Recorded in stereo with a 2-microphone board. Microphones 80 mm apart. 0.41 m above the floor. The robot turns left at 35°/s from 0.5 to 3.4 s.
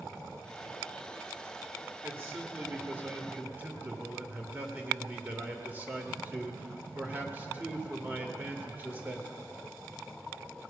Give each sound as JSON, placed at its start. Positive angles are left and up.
{"t": 2.0, "sound": "a man speaking", "side_deg": -25, "distance_m": 1.5}